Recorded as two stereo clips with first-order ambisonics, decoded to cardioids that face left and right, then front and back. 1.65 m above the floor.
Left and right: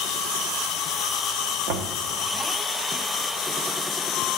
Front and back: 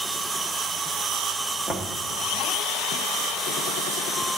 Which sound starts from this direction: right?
Knocking, at 1.7 s.